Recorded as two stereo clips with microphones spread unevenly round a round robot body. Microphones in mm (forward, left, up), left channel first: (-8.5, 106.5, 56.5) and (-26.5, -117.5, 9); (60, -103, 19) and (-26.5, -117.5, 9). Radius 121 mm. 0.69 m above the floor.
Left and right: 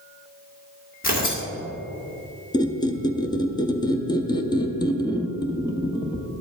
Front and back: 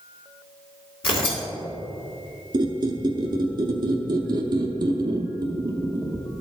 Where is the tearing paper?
25° left, 2 m.